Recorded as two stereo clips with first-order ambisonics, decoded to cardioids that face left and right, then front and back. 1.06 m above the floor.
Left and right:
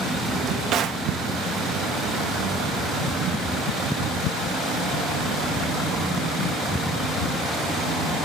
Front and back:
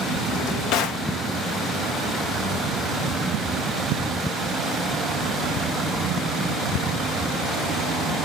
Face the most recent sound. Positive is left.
turn(degrees=-35)